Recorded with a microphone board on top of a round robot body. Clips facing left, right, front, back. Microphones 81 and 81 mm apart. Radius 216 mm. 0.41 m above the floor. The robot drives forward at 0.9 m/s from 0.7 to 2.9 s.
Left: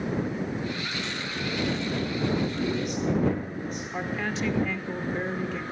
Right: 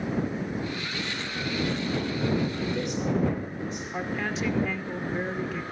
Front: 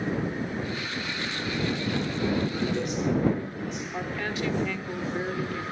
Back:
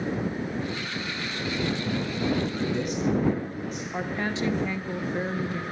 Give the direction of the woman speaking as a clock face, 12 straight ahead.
6 o'clock.